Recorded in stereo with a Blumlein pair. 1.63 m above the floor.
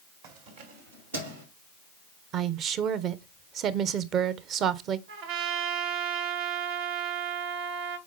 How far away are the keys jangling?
About 1.5 m.